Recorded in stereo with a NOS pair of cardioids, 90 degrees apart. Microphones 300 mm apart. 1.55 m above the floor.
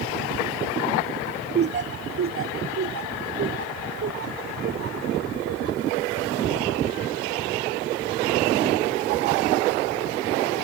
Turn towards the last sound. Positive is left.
turn(degrees=-50)